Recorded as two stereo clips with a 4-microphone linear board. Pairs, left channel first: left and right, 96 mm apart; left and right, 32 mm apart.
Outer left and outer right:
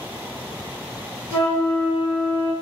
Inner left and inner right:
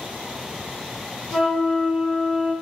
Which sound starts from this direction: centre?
A flute, at 1.3 s.